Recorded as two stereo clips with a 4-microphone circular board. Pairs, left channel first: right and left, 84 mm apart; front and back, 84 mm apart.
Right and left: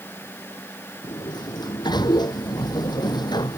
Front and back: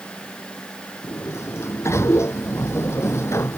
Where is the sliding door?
55° right.